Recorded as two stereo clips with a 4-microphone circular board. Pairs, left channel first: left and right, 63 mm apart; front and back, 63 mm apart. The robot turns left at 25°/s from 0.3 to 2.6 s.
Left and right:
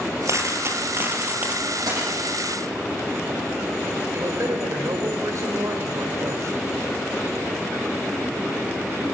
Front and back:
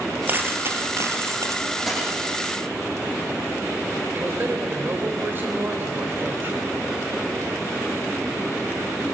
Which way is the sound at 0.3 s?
125° right.